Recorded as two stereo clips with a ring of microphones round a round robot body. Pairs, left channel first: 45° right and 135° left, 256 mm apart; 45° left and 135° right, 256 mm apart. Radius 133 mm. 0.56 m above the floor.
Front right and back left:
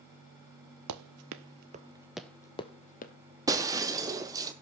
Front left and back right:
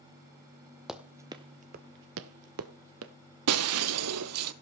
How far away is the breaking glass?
About 0.8 m.